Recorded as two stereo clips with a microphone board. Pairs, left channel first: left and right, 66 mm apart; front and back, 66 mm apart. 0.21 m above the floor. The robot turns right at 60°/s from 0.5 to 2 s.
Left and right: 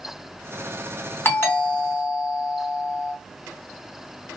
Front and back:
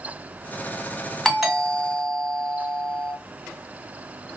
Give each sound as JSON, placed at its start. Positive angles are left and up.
{"t": 1.2, "sound": "a doorbell", "azimuth_deg": 80, "distance_m": 1.9}